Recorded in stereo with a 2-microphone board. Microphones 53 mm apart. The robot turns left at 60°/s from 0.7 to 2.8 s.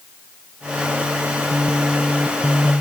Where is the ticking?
I don't hear ticking.